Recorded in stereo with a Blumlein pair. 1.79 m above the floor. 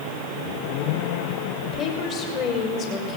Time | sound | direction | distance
1.6 | a woman speaking | 35° left | 6 m